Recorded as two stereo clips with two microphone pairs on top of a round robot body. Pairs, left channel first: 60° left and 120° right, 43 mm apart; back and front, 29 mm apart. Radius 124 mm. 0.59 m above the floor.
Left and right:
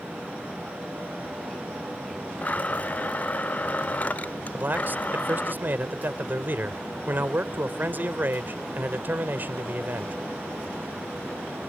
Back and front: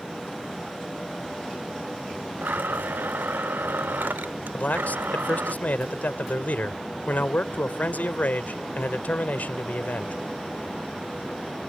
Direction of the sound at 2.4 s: 5° left.